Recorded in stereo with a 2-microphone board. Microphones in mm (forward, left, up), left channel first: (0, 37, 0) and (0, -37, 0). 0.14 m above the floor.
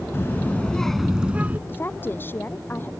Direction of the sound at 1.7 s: 30° left (ahead or behind).